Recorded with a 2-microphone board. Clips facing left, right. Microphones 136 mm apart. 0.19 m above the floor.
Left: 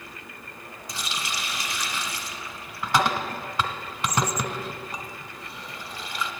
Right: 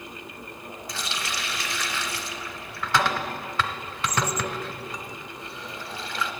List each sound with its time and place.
0.9 s a running tap: 15° left (ahead or behind), 1.1 m